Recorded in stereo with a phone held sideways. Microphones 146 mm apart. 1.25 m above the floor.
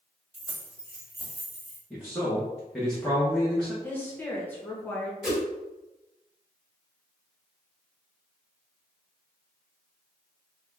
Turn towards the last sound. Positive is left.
turn(degrees=0)  # may be behind; listen again after turning